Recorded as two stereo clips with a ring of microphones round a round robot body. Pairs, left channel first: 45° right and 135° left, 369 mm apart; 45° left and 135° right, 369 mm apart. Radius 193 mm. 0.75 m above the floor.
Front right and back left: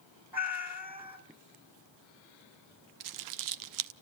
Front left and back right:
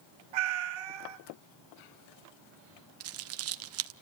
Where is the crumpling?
175° left, 0.7 m.